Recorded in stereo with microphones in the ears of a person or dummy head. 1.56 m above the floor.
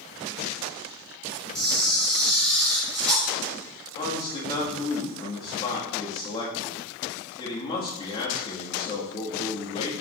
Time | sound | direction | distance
1.6 | a camera shutter | 5° left (ahead or behind) | 3 m
4.0 | a man speaking | 30° left (ahead or behind) | 2 m